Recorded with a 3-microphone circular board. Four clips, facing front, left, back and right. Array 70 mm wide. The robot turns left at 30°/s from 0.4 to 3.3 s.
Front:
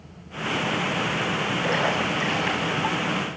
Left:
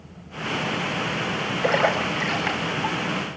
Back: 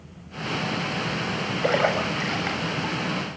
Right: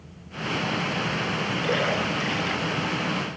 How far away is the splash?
About 8.5 m.